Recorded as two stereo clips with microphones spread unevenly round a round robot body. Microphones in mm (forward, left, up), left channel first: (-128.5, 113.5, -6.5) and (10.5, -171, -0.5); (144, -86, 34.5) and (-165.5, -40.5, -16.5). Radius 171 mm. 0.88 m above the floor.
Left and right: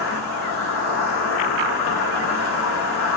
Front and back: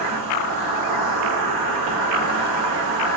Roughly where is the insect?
Behind.